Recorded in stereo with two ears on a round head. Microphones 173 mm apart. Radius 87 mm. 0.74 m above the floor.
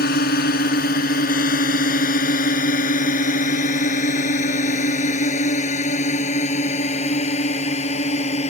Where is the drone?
55° left (ahead or behind); by 8.5 s 40° left (ahead or behind).